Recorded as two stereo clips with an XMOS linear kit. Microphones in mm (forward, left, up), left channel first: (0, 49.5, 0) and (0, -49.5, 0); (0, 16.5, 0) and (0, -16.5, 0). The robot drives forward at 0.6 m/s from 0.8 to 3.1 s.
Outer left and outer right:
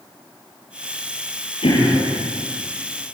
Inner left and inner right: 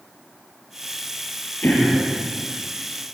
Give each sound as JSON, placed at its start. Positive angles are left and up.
{"t": 1.6, "sound": "throat clearing", "side_deg": 75, "distance_m": 8.0}